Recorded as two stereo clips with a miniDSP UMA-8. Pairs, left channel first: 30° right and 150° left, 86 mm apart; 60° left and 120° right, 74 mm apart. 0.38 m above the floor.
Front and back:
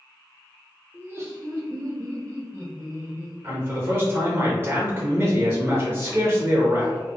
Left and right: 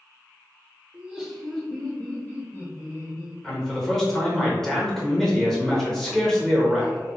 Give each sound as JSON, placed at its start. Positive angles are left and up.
{"t": 0.9, "sound": "laughter", "azimuth_deg": -175, "distance_m": 0.9}
{"t": 3.4, "sound": "a man speaking", "azimuth_deg": 140, "distance_m": 1.0}